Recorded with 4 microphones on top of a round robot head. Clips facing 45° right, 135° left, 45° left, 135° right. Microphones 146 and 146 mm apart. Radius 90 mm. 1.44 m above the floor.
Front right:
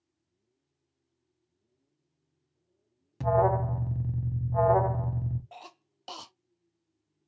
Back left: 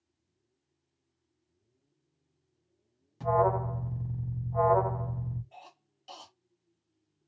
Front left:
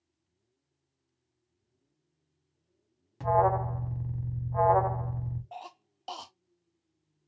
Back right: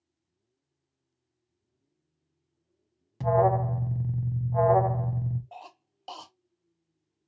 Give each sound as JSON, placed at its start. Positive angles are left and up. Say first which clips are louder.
{"t": 3.2, "sound": "an alarm", "louder": "front right 2 dB, back right 2 dB", "azimuth_deg": -80, "distance_m": 0.6}
{"t": 5.5, "sound": "a cough", "louder": "front right 4 dB, front left 2 dB", "azimuth_deg": -50, "distance_m": 0.5}